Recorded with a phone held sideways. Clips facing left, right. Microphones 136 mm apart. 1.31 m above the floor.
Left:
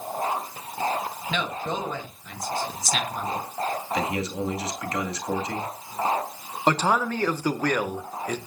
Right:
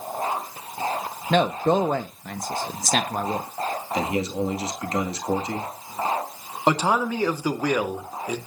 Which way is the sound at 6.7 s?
10° right (ahead or behind).